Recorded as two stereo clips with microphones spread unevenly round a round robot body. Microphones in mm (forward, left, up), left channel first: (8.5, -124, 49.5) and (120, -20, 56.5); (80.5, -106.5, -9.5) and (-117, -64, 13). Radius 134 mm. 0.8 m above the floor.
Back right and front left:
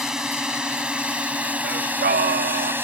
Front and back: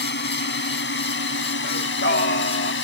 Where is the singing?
35° left.